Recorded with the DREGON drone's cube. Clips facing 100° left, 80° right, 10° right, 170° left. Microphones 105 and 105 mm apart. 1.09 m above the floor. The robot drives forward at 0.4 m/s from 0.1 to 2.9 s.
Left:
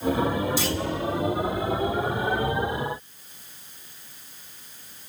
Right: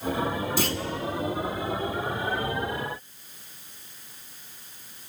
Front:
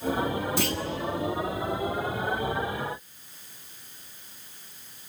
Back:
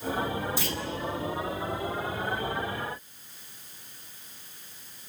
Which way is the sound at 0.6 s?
40° right.